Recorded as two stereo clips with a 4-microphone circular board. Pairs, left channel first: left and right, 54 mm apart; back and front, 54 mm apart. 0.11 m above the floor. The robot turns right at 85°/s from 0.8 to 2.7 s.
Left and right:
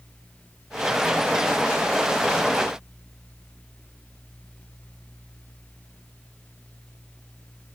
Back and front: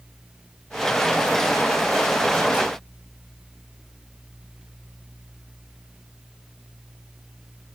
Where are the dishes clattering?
No dishes clattering in this recording.